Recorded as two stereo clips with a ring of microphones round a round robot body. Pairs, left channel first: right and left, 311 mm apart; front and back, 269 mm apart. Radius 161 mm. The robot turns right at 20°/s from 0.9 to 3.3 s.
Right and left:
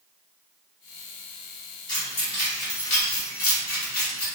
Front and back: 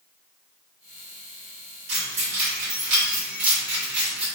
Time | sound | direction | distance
1.9 | keys jangling | 165° right | 1.4 m